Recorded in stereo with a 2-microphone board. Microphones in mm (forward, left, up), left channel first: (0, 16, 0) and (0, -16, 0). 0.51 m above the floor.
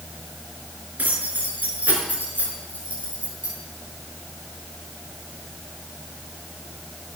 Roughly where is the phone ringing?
No phone ringing in this recording.